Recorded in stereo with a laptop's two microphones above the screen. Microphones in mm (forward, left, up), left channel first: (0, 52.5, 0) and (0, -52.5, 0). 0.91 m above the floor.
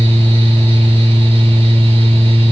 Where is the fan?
75° right (ahead or behind), 1.6 m.